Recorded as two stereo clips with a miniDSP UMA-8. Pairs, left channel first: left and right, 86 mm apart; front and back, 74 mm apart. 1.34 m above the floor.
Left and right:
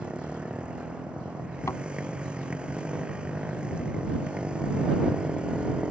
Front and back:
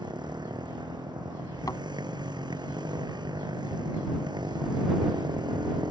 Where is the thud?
35° left.